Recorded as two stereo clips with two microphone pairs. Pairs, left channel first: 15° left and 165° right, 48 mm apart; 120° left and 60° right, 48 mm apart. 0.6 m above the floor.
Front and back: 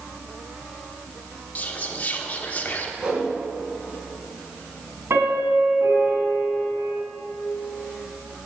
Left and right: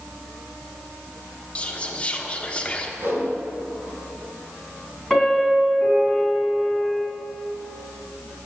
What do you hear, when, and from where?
1.6 s whispering: 60° left, 1.1 m
3.0 s a whoosh: 95° right, 3.5 m
5.1 s a piano: 155° right, 3 m